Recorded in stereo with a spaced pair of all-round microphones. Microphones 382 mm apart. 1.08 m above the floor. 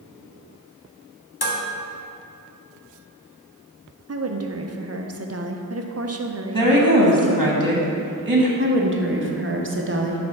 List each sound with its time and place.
1.4 s dishes clattering: 85° left, 1.0 m
4.1 s a woman speaking: 40° right (ahead or behind), 0.6 m
6.5 s a woman speaking: 55° right (ahead or behind), 1.1 m
8.6 s a woman speaking: 35° right (ahead or behind), 0.8 m